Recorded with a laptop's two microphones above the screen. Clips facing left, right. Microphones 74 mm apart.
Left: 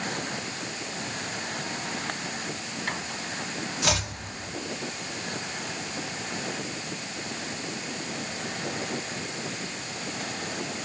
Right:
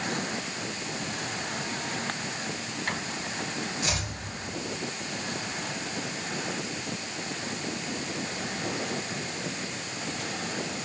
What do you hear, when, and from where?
3.8 s chopping: 90° left, 1.7 m